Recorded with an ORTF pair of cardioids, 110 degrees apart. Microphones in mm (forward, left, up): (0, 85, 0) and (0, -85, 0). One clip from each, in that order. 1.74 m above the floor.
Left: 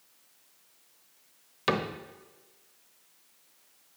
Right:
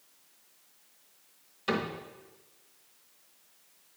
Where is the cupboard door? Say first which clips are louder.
Left 3 dB; 60° left, 0.9 m.